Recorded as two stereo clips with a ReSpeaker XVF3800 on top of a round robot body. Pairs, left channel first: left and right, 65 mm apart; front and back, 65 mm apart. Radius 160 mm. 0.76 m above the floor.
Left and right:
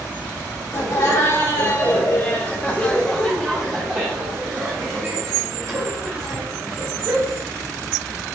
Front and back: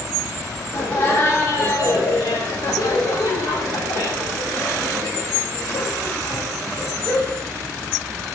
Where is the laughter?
60° left, 2.5 m; by 7.4 s 55° right, 4.5 m.